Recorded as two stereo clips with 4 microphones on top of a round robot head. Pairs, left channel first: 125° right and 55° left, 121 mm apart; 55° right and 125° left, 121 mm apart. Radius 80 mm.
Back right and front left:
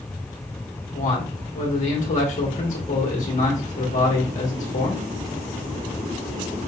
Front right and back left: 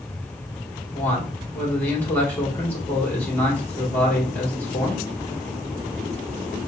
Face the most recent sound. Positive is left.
turn(degrees=-130)